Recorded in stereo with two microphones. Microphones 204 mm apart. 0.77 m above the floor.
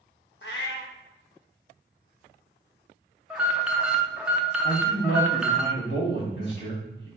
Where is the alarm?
5° right (ahead or behind), 0.5 m.